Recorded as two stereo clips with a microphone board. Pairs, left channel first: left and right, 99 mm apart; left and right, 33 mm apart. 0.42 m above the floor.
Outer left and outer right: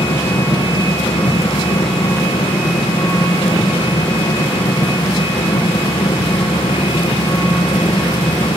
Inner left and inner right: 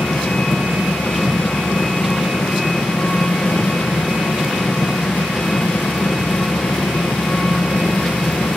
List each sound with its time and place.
0.0 s an engine running: 85° left, 4.5 m